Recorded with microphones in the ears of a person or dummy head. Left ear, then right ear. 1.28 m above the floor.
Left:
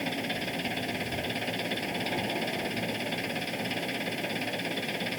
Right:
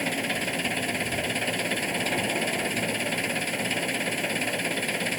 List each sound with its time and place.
0.0 s an engine running: 15° right (ahead or behind)